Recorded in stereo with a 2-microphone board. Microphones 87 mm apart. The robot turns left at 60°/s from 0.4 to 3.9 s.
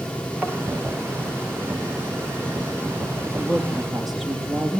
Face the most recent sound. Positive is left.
turn(degrees=0)